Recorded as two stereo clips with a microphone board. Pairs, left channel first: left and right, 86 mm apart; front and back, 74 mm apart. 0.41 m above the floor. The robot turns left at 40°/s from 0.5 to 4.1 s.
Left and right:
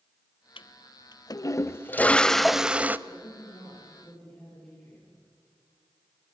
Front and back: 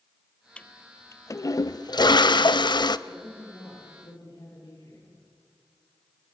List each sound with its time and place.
0.6 s a toilet flushing: 75° left, 0.5 m; by 3.0 s 20° right, 0.5 m
3.1 s a woman speaking: 55° left, 9.5 m; by 5.2 s 15° left, 9.5 m